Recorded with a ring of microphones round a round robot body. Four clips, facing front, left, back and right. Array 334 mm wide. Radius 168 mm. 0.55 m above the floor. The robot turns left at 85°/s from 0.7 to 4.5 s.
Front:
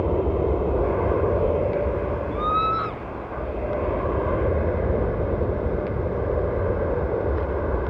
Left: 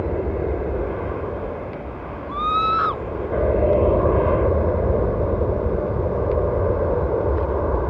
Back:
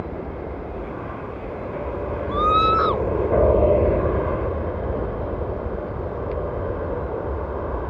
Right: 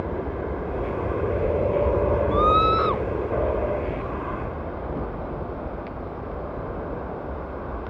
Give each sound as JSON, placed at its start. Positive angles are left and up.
{"t": 0.0, "sound": "an aircraft", "azimuth_deg": 35}
{"t": 2.3, "sound": "a scream", "azimuth_deg": -150}